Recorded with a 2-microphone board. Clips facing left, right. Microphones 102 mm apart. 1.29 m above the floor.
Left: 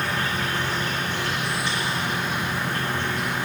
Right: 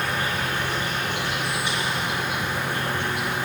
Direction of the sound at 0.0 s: 10° right (ahead or behind).